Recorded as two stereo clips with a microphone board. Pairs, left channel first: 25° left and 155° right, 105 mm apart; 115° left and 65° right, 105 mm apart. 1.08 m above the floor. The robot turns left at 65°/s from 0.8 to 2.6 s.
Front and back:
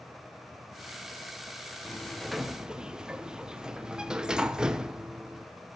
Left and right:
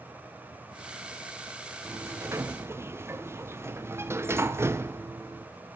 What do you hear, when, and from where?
1.9 s a sliding door: 40° right, 0.7 m; by 5.5 s 85° right, 0.7 m